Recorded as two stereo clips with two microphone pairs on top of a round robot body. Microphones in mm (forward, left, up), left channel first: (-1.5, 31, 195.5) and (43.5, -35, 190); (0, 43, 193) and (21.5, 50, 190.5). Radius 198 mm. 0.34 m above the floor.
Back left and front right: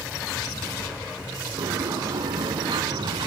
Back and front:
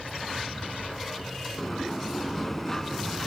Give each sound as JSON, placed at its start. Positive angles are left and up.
{"t": 1.6, "sound": "a sliding door", "azimuth_deg": -85}